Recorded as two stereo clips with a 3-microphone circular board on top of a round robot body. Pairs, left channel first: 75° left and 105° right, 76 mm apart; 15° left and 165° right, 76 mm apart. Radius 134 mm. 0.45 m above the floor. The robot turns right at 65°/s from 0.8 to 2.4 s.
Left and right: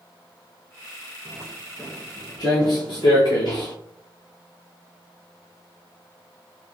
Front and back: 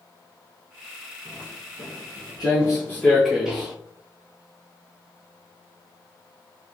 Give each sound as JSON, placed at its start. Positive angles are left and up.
{"t": 1.2, "sound": "footsteps", "azimuth_deg": -75, "distance_m": 1.1}